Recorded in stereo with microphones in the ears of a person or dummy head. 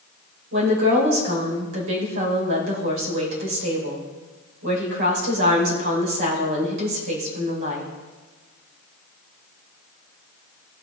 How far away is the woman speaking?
About 4 m.